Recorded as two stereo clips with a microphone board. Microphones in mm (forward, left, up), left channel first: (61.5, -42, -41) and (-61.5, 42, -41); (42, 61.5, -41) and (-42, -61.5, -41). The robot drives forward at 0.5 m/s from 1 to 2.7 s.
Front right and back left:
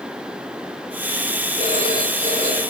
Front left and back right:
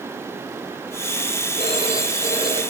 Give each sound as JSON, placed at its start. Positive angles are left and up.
{"t": 1.6, "sound": "a phone ringing", "azimuth_deg": -175, "distance_m": 9.0}